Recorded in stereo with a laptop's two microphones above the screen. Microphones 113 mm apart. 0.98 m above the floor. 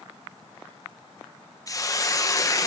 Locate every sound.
1.7 s a hiss: 30° left (ahead or behind), 0.7 m